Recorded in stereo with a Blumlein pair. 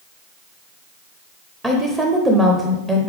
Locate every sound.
1.6 s a woman speaking: 10° right, 0.7 m